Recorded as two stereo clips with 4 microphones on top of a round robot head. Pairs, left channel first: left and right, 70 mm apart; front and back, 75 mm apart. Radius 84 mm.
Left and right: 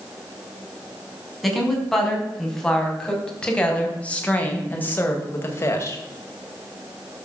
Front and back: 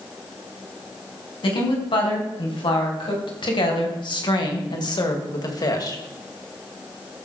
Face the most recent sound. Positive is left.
turn(degrees=40)